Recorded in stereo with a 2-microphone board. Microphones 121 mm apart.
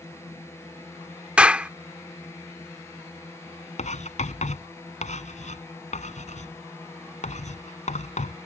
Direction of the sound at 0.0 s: 20° left (ahead or behind).